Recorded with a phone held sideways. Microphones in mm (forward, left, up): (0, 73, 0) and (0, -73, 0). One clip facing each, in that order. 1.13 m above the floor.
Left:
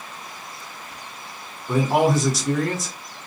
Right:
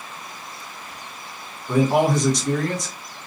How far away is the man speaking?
About 1.0 m.